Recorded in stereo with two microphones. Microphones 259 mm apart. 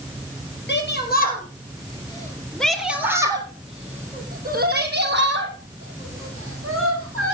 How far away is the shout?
About 3.5 m.